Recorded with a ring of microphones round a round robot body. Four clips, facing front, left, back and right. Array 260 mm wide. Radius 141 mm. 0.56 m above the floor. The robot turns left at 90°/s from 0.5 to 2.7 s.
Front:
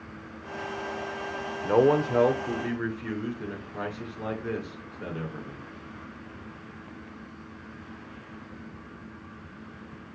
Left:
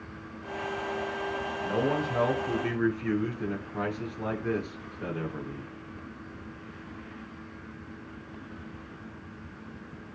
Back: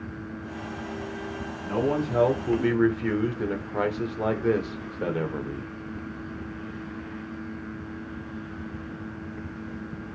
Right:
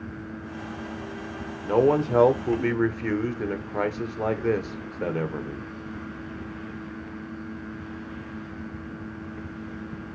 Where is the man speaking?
30° right, 2 m; by 5.7 s 125° right, 2 m.